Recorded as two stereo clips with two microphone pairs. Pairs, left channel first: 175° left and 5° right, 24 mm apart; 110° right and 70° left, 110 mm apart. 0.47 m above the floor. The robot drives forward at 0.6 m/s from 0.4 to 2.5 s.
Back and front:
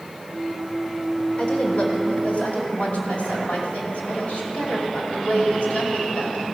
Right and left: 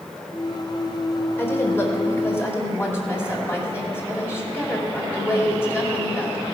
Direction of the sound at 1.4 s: 170° right.